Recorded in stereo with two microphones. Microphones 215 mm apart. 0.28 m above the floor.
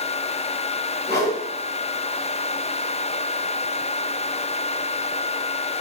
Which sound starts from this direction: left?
A whoosh, at 1.1 s.